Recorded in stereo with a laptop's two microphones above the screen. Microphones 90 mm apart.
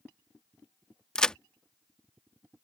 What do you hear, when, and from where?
1.1 s a crack: 10° left (ahead or behind)